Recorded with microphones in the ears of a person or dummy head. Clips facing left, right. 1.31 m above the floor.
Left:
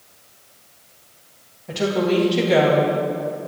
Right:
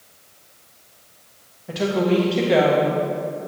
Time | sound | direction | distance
1.7 | a woman speaking | 10° right (ahead or behind) | 1.5 m